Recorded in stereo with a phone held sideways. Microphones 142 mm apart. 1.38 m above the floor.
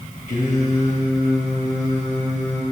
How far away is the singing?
About 4 m.